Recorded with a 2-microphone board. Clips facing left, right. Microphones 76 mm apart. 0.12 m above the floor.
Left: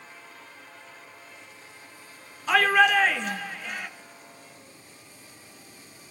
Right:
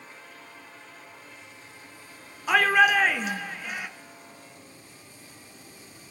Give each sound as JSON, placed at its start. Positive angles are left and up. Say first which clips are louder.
{"t": 2.5, "sound": "a shout", "louder": "even", "side_deg": -10, "distance_m": 1.2}